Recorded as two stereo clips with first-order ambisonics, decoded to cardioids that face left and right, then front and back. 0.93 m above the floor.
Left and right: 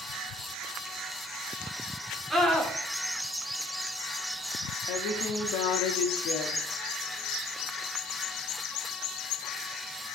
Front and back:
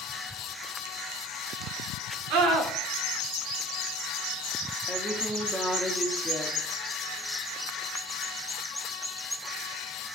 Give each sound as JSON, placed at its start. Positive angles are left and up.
{"t": 2.3, "sound": "a scream", "azimuth_deg": -170, "distance_m": 2.5}
{"t": 4.9, "sound": "a woman speaking", "azimuth_deg": 100, "distance_m": 1.5}